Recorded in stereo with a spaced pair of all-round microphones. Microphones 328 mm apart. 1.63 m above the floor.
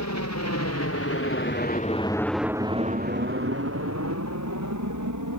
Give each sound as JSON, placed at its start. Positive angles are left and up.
{"t": 0.0, "sound": "a helicopter", "side_deg": 60}